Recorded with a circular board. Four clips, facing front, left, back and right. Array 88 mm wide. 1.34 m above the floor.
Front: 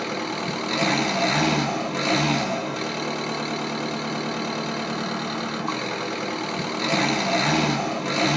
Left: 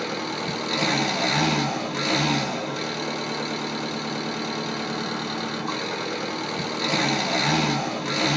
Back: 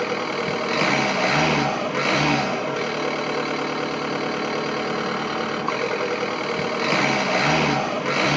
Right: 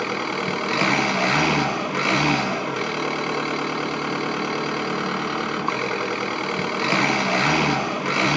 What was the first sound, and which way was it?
An engine running, 120° right.